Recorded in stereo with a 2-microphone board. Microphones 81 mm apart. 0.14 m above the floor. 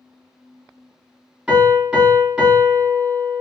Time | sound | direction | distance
1.5 | a piano | 15° right (ahead or behind) | 1.8 m